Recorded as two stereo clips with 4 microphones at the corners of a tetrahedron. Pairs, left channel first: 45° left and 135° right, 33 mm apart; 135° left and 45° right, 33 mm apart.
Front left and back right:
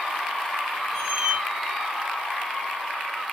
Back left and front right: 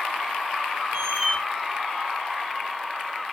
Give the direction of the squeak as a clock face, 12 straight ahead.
2 o'clock.